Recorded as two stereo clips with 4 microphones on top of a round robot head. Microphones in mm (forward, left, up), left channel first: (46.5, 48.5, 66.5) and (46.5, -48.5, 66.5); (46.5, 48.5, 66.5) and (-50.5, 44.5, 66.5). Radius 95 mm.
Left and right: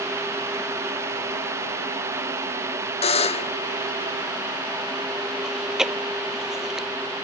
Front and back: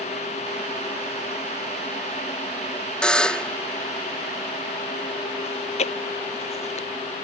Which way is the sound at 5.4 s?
5° right.